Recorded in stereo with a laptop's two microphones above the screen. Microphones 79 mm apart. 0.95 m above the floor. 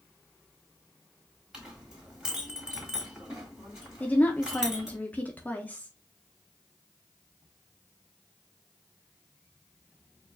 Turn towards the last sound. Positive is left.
turn(degrees=20)  # may be behind; listen again after turning